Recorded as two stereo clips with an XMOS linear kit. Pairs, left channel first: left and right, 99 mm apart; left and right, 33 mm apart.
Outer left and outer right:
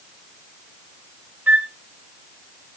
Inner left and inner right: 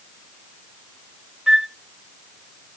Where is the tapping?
No tapping in this recording.